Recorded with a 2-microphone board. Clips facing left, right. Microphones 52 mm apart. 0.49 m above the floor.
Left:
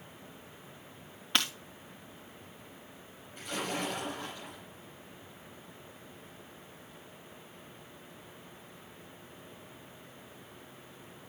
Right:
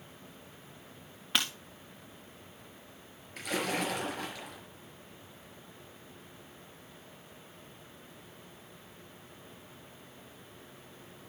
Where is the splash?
80° right, 4.5 m.